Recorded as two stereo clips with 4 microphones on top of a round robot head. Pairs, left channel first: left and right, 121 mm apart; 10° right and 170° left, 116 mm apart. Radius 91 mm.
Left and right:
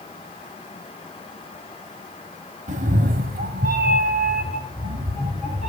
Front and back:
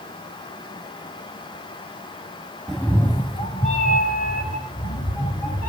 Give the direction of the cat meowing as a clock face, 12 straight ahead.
3 o'clock.